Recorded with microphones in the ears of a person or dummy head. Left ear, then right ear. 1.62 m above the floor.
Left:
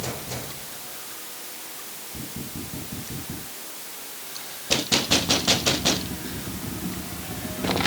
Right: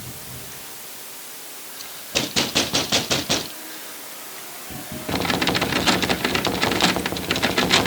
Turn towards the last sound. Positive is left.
No sound to turn to.